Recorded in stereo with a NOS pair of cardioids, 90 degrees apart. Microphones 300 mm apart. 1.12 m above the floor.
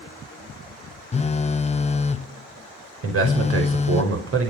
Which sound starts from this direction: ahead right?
A man speaking, at 3.0 s.